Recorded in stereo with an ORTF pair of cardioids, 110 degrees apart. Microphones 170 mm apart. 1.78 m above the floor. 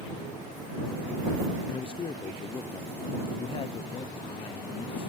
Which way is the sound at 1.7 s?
30° left.